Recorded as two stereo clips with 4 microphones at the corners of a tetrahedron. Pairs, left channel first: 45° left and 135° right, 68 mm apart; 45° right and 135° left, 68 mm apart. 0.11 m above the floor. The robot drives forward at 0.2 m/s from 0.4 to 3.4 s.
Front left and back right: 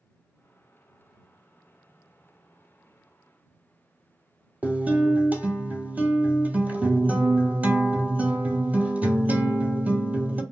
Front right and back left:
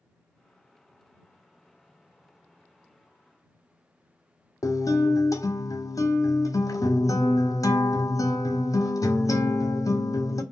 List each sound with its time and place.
4.6 s a guitar: 70° right, 0.5 m